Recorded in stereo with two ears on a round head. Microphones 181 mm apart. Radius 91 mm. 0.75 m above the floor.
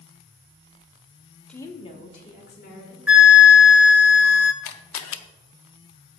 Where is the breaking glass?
I don't hear breaking glass.